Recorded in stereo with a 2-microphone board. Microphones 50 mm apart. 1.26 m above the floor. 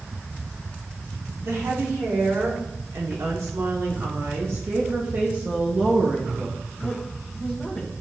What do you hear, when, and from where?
1.4 s a woman speaking: 80° right, 2.5 m; by 7.9 s 10° left (ahead or behind), 1.7 m